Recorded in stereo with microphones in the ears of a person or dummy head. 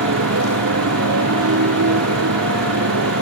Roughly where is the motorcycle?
Right.